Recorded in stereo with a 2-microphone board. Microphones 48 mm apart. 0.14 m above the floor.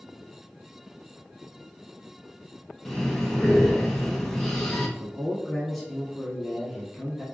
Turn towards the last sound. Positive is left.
turn(degrees=0)  # may be behind; listen again after turning